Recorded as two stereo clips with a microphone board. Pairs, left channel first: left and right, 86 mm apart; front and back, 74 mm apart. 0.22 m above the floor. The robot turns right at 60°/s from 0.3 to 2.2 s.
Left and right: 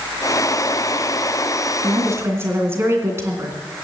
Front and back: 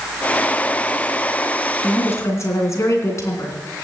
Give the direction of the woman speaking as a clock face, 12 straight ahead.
2 o'clock.